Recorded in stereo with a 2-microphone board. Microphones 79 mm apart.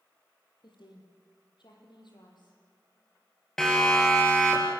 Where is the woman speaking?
80° left, 6.5 m; by 2.6 s 70° left (ahead or behind), 7 m.